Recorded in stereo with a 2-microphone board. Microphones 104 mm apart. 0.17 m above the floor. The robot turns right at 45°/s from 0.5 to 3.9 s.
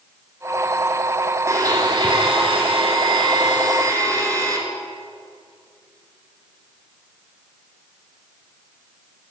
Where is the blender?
145° right, 1.2 m; by 4.6 s 40° right, 1.2 m.